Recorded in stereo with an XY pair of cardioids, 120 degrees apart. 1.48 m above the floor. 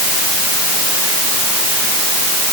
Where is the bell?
I don't hear a bell.